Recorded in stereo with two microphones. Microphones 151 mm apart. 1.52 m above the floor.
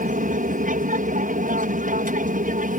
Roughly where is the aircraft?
Right.